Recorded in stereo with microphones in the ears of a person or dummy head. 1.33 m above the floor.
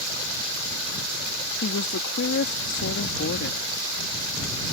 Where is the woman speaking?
65° left (ahead or behind).